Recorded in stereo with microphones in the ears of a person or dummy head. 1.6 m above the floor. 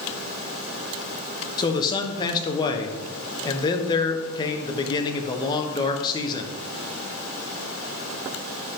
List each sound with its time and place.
1.6 s a man speaking: 25° left (ahead or behind), 1.3 m